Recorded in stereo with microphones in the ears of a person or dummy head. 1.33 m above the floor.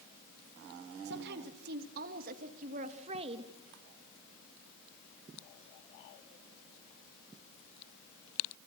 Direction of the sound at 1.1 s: 65° right (ahead or behind).